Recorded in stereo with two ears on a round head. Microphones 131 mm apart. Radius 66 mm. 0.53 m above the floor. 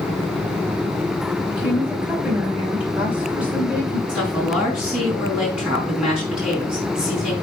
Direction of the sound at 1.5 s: 10° right (ahead or behind).